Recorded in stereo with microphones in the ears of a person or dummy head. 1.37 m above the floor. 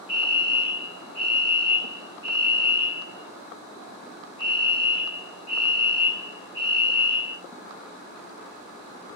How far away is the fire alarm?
About 1.8 m.